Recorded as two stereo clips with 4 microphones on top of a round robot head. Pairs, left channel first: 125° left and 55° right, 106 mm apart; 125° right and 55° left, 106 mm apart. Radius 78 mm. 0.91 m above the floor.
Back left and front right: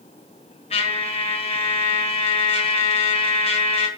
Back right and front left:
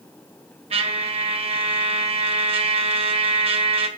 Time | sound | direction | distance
0.7 | a trumpet | 90° left | 1.4 m